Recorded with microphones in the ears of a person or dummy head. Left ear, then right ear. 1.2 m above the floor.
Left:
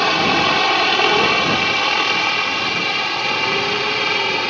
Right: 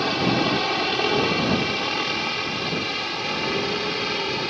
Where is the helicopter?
40° left (ahead or behind).